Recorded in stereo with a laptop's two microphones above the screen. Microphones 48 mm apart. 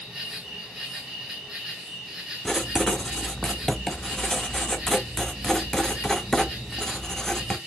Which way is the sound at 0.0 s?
10° right (ahead or behind).